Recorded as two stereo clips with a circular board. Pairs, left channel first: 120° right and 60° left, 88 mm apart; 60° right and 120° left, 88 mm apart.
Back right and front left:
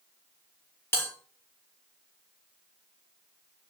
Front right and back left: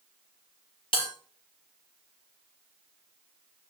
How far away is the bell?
About 4.5 m.